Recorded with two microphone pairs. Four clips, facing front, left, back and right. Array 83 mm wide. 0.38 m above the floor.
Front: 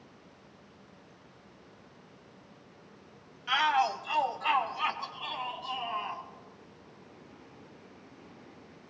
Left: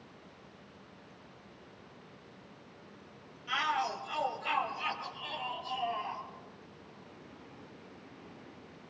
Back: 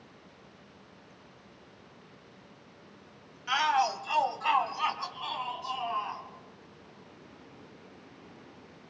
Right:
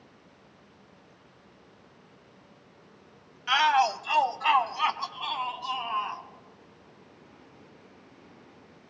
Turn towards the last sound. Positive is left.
turn(degrees=-105)